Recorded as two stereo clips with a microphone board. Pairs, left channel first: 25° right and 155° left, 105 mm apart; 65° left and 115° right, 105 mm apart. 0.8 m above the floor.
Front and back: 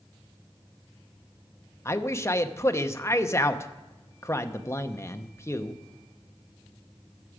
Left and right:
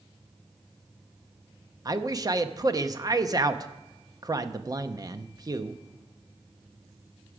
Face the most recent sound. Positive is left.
turn(degrees=-75)